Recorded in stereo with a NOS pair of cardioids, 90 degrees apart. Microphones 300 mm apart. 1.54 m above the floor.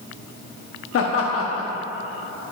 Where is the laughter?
50° left, 0.9 m.